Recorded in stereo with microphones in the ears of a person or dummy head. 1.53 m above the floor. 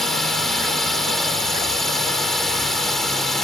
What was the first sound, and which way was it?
A drone, centre (ahead or behind).